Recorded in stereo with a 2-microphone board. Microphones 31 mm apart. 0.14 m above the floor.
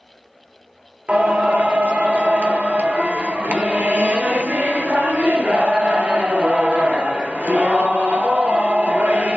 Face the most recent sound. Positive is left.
turn(degrees=-65)  # may be behind; listen again after turning